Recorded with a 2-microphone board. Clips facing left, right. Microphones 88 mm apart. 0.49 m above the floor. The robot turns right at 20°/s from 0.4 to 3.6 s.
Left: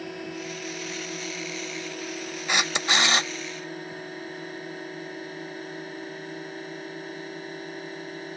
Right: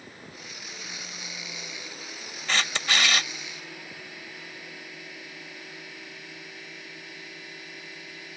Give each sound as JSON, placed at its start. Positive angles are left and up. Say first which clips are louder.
{"t": 0.0, "sound": "a drone", "louder": "left 11 dB", "azimuth_deg": 75}
{"t": 2.5, "sound": "a camera shutter", "louder": "left 2 dB", "side_deg": 15}